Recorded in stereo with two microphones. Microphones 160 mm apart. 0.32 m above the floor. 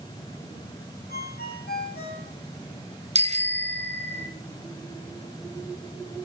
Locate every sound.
1.1 s a ringtone: 75° left (ahead or behind), 7.5 m
3.1 s a bicycle bell: 45° right (ahead or behind), 2 m